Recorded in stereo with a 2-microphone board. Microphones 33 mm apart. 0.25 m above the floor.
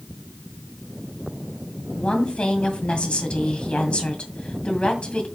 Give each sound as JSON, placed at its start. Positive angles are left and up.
{"t": 2.0, "sound": "a woman speaking", "side_deg": 40, "distance_m": 2.0}